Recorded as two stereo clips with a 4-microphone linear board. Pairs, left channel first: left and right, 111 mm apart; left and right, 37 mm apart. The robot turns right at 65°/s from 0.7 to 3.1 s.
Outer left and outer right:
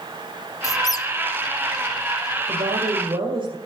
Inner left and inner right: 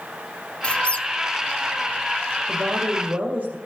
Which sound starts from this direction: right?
A woman speaking, at 2.5 s.